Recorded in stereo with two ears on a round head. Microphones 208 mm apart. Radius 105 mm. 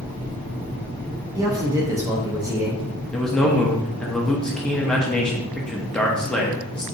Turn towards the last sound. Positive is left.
turn(degrees=5)  # may be behind; listen again after turning